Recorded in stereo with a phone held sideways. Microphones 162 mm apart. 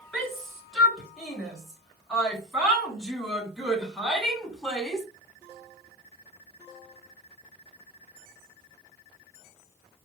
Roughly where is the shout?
Centre.